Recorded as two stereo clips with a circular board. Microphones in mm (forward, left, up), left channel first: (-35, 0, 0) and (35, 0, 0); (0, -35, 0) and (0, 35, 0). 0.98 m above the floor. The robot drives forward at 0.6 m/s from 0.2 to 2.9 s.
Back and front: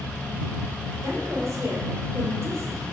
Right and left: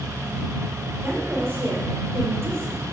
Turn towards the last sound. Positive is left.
turn(degrees=45)